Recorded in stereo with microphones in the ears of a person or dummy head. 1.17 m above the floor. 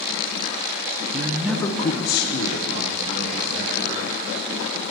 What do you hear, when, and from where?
1.1 s a man speaking: 40° right (ahead or behind), 0.6 m; by 4.2 s 70° left (ahead or behind), 3 m